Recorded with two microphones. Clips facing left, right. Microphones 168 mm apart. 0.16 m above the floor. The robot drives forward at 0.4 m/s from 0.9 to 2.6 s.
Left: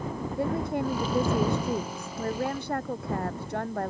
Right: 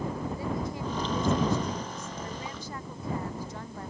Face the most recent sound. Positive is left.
turn(degrees=65)  # may be behind; listen again after turning